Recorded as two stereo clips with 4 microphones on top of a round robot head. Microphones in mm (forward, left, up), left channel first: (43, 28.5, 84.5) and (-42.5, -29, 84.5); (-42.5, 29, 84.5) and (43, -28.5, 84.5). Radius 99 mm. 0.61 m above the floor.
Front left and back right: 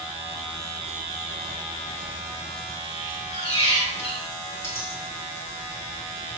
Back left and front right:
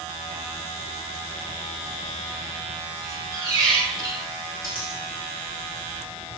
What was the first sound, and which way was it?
A squeak, 20° left.